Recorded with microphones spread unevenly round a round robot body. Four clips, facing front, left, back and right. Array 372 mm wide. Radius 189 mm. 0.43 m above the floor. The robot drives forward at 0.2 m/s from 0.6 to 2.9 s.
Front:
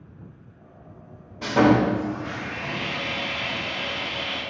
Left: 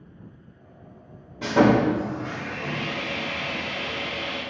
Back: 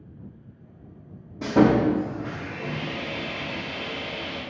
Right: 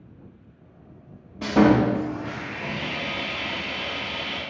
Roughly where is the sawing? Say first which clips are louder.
Right 1 dB, even; behind.